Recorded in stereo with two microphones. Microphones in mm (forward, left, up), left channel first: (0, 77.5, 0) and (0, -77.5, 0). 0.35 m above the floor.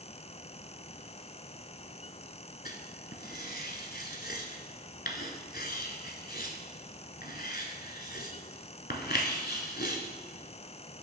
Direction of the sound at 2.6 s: 85° left.